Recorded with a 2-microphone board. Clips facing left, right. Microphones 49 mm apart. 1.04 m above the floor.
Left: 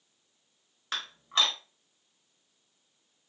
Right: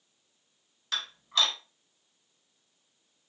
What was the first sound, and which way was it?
Dishes clattering, 30° left (ahead or behind).